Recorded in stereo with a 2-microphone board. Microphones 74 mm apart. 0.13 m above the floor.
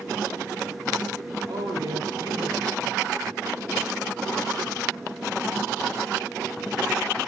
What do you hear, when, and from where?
1.5 s a man speaking: 70° right (ahead or behind), 3.5 m; by 3.5 s 55° right (ahead or behind), 3.5 m